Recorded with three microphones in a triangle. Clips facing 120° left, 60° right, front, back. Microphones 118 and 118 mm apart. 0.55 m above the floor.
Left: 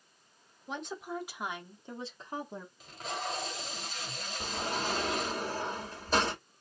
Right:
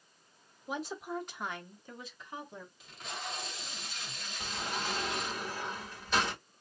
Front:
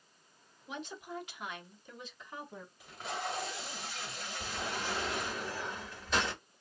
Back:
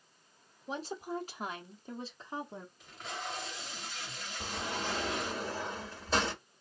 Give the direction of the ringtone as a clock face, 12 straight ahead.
I don't hear a ringtone.